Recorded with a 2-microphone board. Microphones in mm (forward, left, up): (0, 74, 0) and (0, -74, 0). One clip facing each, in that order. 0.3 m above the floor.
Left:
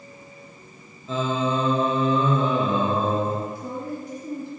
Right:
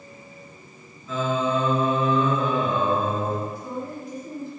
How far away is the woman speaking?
About 3 m.